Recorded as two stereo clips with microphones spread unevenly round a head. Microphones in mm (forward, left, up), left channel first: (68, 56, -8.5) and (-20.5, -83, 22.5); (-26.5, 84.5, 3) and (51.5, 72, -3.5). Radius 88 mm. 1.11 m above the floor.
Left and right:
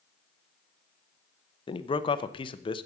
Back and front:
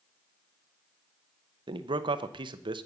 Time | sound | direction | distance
1.7 | a man speaking | straight ahead | 0.8 m